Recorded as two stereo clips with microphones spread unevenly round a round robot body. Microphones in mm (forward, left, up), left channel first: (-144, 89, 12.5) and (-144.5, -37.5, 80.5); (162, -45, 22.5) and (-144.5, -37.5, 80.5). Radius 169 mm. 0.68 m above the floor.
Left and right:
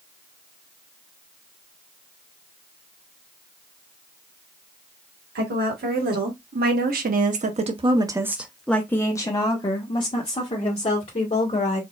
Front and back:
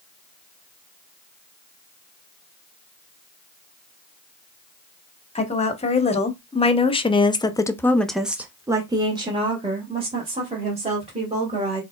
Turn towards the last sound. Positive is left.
turn(degrees=105)